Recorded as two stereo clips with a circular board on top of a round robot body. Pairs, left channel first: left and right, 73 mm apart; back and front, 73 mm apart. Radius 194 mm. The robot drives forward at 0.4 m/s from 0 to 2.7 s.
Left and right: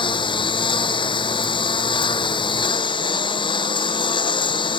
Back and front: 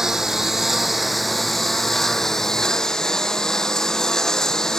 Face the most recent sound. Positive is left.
turn(degrees=95)